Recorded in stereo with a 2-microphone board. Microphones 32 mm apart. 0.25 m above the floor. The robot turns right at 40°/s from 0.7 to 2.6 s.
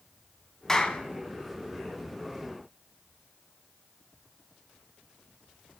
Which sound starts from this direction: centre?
A clap, at 0.7 s.